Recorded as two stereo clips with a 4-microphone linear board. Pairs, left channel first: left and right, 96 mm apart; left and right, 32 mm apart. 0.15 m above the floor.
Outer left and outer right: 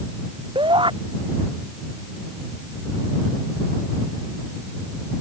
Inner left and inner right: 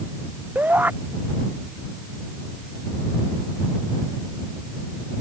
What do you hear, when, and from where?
0.6 s a shout: 60° right (ahead or behind)